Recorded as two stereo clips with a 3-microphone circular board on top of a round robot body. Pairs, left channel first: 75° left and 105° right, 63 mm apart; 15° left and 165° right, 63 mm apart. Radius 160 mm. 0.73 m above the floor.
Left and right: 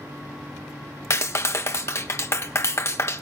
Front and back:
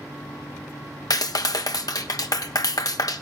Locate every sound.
1.1 s a clap: 30° left, 1.0 m